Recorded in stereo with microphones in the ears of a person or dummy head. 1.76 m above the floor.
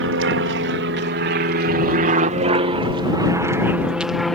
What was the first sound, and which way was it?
An aircraft, 70° right (ahead or behind).